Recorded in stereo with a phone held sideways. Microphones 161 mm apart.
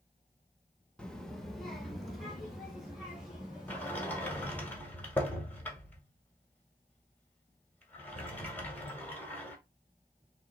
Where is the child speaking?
5° left (ahead or behind), 0.9 m; by 4.7 s 5° right (ahead or behind), 3 m.